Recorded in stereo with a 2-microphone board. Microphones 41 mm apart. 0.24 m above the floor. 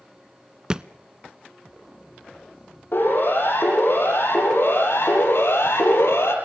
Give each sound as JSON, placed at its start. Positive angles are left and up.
{"t": 0.7, "sound": "a thud", "side_deg": -20, "distance_m": 0.6}
{"t": 2.9, "sound": "a siren", "side_deg": 55, "distance_m": 8.5}